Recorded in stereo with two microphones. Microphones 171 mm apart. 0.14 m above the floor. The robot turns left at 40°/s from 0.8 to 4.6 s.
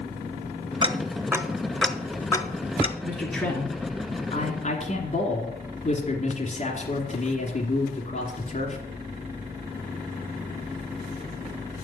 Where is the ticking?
30° right (ahead or behind), 1.0 m; by 2.9 s 35° left (ahead or behind), 1.0 m.